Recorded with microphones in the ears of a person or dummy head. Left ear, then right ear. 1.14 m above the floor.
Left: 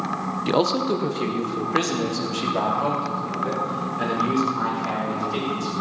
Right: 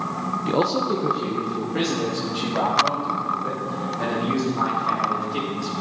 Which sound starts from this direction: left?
A man speaking, at 0.5 s.